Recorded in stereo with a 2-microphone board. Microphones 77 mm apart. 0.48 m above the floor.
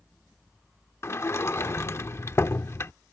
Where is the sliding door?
35° left (ahead or behind).